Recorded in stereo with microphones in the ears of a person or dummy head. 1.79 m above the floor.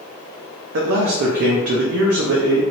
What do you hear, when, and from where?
0.7 s a man speaking: 55° right (ahead or behind), 0.5 m